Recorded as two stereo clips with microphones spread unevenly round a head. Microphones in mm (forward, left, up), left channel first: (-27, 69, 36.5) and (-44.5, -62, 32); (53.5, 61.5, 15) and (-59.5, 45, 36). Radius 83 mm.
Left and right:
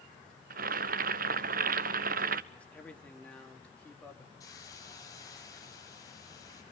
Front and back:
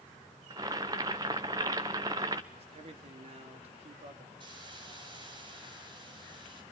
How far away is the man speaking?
About 3 m.